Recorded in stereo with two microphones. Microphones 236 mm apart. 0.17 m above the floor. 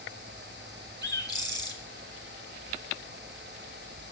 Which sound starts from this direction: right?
A bird, at 1.0 s.